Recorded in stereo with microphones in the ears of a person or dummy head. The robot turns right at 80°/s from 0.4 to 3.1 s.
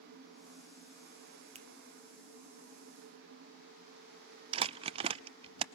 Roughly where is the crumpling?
Right.